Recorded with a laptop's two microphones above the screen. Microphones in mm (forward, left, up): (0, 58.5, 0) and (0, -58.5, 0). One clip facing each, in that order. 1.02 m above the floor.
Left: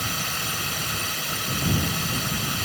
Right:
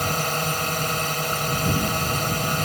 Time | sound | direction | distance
0.0 | a drone | 50° right (ahead or behind) | ?